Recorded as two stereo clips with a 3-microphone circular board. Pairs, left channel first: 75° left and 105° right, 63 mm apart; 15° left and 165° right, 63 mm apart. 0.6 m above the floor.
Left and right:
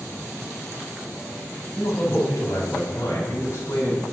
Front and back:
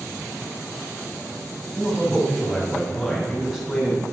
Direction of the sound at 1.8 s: 105° left.